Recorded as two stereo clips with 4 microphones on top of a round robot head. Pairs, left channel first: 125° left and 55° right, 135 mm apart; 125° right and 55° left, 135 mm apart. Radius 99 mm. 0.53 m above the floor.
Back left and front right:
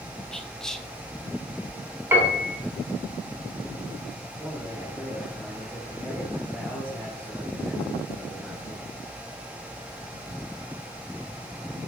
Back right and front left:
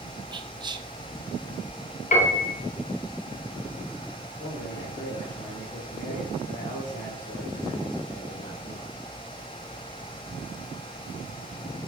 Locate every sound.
0.3 s whispering: 40° left, 1.0 m
2.1 s a piano: 130° right, 2 m
4.4 s a man speaking: 155° right, 3.5 m